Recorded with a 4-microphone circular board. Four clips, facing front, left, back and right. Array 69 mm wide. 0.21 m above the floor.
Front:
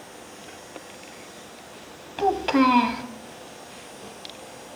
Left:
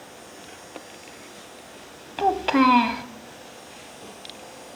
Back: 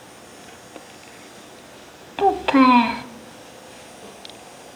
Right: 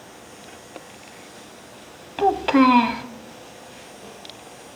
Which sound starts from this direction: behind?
A child speaking, at 2.2 s.